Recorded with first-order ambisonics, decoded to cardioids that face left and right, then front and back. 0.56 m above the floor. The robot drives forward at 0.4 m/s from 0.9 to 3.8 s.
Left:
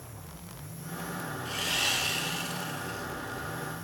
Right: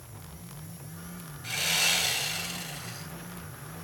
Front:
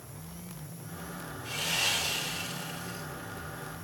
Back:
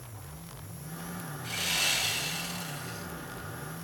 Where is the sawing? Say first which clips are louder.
Right 3 dB, back 1 dB; 110° right, 8.5 m; by 3.1 s 115° right, 8.5 m.